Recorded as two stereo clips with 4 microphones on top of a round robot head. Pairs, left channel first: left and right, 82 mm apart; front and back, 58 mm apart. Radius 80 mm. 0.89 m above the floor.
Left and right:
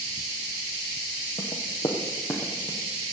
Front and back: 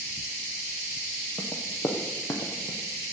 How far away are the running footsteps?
About 2.5 m.